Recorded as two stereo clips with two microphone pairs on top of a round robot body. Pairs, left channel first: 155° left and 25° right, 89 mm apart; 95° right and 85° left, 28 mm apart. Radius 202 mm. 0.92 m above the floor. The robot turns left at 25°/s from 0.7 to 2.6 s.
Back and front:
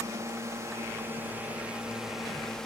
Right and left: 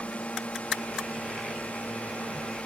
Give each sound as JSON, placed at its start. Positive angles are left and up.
{"t": 0.0, "sound": "a drone", "azimuth_deg": -75}